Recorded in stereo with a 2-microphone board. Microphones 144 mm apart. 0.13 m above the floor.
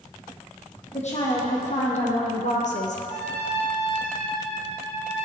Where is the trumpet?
50° left (ahead or behind), 3 m.